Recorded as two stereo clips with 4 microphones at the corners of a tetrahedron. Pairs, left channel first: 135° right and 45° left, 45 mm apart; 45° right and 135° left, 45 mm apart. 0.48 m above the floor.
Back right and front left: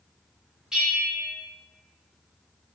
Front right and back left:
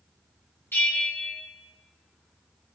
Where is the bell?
25° right, 3 m.